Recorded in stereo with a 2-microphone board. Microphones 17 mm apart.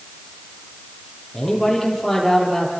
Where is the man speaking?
15° left (ahead or behind), 9.5 m; by 2.7 s 10° left (ahead or behind), 9.5 m.